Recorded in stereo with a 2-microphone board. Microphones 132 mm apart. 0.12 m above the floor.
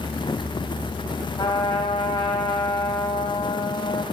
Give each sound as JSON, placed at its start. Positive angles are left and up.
{"t": 1.4, "sound": "a trumpet", "side_deg": 35, "distance_m": 1.7}